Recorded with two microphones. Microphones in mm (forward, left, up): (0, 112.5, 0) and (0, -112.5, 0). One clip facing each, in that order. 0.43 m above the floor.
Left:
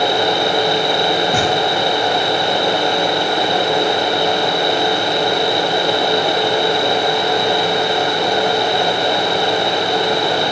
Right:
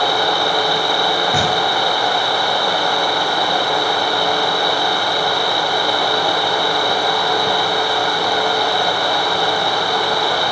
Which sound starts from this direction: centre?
A thud, at 1.3 s.